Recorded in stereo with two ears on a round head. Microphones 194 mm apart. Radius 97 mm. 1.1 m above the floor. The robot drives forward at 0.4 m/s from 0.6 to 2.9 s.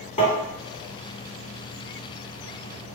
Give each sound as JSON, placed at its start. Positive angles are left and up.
{"t": 0.2, "sound": "tapping", "side_deg": 35, "distance_m": 1.7}